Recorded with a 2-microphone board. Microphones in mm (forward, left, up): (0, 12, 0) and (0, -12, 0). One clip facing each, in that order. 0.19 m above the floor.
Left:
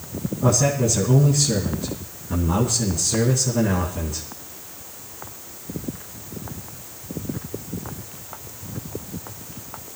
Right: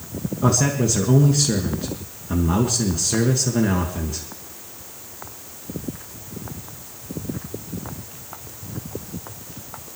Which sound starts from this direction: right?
A man speaking, at 0.4 s.